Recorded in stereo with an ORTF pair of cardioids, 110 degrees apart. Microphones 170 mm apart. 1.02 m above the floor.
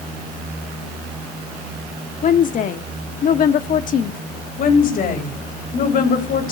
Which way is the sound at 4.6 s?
60° left.